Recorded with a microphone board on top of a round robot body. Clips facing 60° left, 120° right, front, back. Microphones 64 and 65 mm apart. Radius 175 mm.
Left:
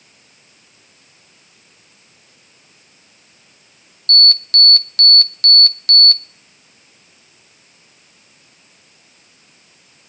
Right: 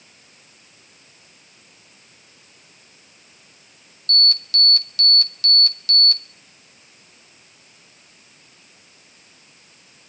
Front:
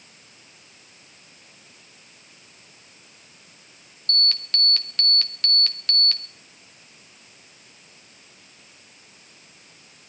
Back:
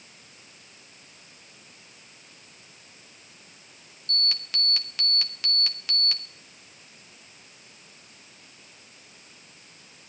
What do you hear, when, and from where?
4.1 s an alarm: 100° left, 1.2 m